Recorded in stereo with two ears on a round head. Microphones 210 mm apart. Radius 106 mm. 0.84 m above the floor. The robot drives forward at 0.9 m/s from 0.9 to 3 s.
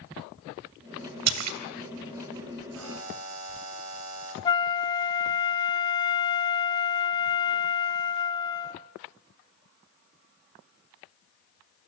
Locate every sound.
1.3 s a splash: 85° right, 2.5 m; by 1.6 s 75° right (ahead or behind), 2.5 m
2.8 s a buzzer: 60° right (ahead or behind), 4.5 m; by 4.3 s 65° right (ahead or behind), 4.5 m
4.5 s a flute: 20° left (ahead or behind), 1.1 m